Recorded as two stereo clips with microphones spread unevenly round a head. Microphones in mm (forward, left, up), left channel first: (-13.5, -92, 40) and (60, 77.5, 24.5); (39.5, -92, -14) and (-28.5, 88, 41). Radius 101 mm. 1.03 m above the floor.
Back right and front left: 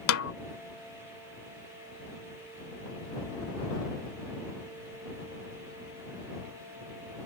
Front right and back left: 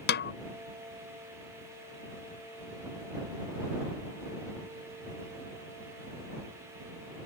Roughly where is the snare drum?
Behind right.